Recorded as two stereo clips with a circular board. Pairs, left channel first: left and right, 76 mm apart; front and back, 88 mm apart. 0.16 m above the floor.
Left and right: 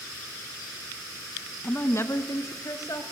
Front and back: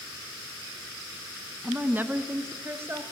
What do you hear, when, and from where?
1.6 s a woman speaking: 130° left, 1.2 m; by 3.0 s 125° left, 2.5 m